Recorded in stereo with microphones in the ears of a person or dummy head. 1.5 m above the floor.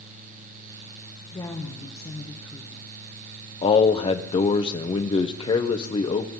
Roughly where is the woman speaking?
Left.